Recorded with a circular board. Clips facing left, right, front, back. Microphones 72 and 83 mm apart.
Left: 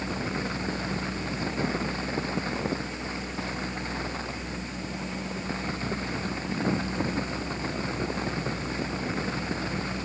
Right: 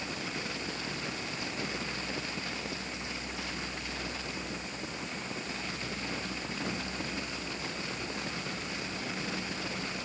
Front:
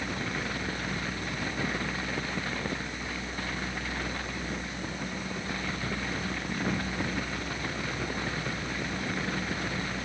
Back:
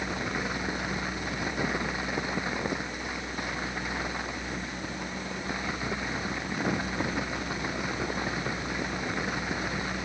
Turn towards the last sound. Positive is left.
No sound to turn to.